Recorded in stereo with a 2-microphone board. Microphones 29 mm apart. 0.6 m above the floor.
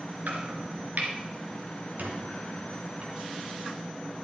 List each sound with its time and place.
0.3 s chopping: 75° right (ahead or behind), 2.5 m
2.0 s a squeak: 75° right (ahead or behind), 3 m